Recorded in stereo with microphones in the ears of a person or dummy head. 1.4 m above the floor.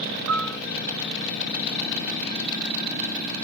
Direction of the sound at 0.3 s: 70° right (ahead or behind).